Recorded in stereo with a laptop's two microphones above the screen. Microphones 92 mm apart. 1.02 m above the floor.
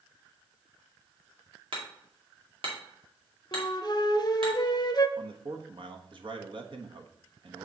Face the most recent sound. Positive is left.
turn(degrees=-55)  # may be behind; listen again after turning